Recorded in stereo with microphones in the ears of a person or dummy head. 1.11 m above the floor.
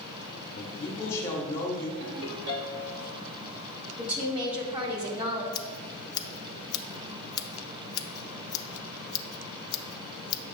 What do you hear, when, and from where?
0.6 s a man speaking: 15° left (ahead or behind), 1.1 m
2.0 s a ringtone: 70° right (ahead or behind), 1.6 m
4.0 s a woman speaking: 30° right (ahead or behind), 1.9 m
5.5 s scissors: 20° left (ahead or behind), 0.6 m